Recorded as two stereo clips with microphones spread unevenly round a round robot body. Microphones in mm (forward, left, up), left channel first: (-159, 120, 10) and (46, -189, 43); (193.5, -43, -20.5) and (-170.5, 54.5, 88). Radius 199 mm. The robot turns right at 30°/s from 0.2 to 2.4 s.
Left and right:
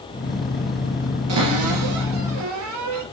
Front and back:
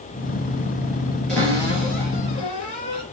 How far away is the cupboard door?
About 4 m.